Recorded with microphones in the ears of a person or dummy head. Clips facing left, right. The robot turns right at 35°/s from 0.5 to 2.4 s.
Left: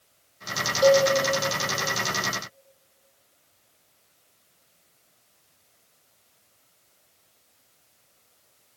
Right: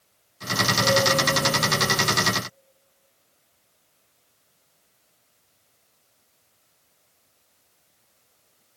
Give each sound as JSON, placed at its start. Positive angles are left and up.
{"t": 0.8, "sound": "a cowbell", "side_deg": 80, "distance_m": 7.5}